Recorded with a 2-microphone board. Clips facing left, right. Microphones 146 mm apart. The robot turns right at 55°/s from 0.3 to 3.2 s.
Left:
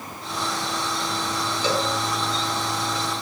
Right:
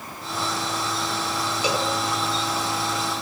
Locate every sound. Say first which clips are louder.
1.6 s a cowbell: left 1 dB; 10° right (ahead or behind), 2.5 m; by 1.9 s 20° right (ahead or behind), 2.5 m